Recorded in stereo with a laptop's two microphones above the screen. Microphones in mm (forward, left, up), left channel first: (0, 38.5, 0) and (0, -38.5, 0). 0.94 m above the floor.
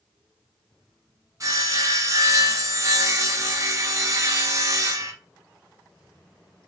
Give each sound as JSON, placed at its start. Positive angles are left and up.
{"t": 1.4, "sound": "sawing", "side_deg": -40, "distance_m": 0.7}